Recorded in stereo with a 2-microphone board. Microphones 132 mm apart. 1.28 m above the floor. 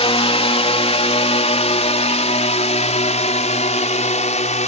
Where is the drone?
50° left (ahead or behind); by 4.7 s 60° left (ahead or behind).